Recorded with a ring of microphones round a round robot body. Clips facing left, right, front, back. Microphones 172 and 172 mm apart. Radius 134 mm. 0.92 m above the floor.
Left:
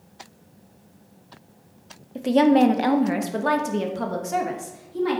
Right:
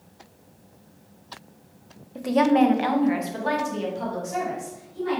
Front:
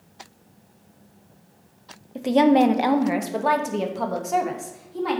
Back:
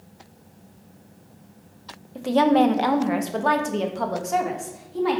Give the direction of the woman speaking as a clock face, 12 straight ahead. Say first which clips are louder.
Left 2 dB, front 1 dB; 10 o'clock.